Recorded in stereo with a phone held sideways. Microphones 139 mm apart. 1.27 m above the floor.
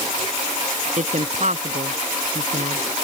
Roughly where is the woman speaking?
Right.